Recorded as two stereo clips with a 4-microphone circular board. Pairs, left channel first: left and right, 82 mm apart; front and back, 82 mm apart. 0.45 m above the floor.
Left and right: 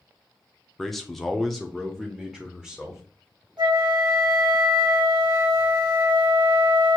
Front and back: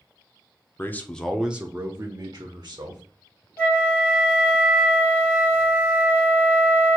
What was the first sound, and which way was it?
A man speaking, 5° left.